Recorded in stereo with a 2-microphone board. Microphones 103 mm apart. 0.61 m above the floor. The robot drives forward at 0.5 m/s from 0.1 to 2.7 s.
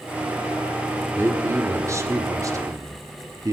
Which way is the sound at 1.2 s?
25° right (ahead or behind).